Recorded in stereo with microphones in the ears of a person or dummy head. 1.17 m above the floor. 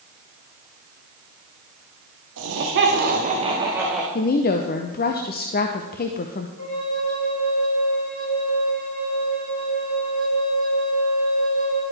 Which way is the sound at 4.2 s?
40° left (ahead or behind).